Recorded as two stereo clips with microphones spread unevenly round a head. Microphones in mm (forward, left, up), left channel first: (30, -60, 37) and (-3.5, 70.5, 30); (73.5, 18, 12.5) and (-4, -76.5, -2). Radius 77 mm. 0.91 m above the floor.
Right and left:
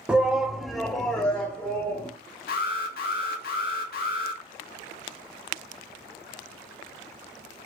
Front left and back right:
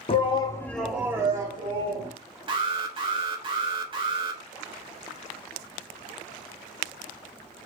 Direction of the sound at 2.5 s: 85° right.